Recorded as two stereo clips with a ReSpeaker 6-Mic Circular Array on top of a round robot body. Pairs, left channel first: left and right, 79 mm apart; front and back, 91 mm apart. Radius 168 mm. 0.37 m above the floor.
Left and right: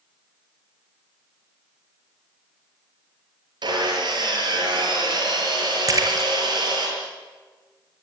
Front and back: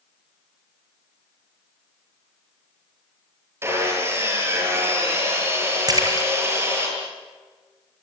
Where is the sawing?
115° right, 8 m.